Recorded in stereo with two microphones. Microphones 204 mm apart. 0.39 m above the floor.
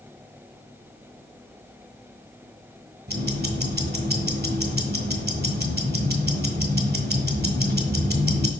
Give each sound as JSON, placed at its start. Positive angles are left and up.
{"t": 3.1, "sound": "ticking", "side_deg": -50, "distance_m": 1.1}